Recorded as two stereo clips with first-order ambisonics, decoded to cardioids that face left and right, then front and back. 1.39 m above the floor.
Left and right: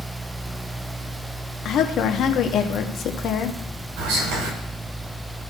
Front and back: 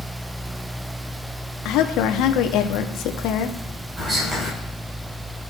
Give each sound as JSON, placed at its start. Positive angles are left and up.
{"t": 1.6, "sound": "a woman speaking", "azimuth_deg": 35, "distance_m": 1.1}
{"t": 4.0, "sound": "whispering", "azimuth_deg": -105, "distance_m": 4.0}